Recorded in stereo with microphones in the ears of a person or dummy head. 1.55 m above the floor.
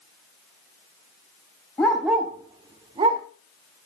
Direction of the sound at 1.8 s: 5° left (ahead or behind).